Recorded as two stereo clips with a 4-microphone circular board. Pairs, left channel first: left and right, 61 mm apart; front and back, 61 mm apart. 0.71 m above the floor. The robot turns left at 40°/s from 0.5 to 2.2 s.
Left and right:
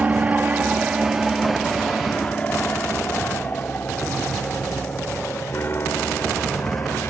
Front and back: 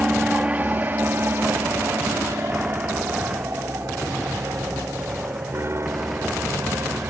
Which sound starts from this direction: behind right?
An aircraft, at 0.0 s.